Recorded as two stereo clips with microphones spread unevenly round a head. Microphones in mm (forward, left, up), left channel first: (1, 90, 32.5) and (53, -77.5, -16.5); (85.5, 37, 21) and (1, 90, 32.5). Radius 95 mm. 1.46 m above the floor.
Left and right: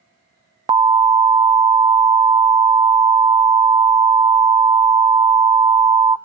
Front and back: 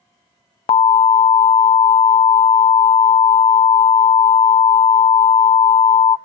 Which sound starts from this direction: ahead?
An alarm, at 0.7 s.